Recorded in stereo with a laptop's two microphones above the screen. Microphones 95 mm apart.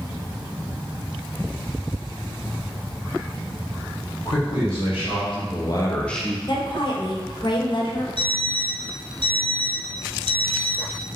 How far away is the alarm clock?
About 0.8 m.